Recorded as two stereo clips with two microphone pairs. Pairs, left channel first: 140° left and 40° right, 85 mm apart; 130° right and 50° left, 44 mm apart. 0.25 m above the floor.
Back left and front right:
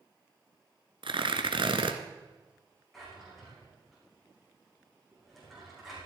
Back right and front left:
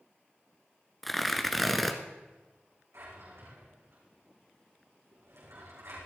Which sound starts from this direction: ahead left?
A drawer, at 2.9 s.